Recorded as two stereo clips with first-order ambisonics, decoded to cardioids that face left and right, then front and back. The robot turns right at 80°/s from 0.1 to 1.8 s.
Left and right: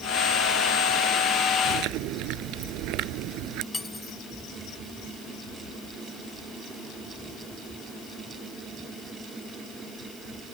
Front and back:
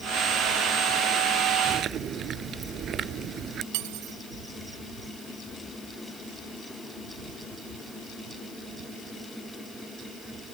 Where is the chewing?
135° right; by 3.6 s 125° right.